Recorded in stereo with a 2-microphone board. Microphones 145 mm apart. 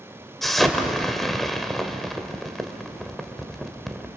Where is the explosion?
Centre (ahead or behind), 1.6 m.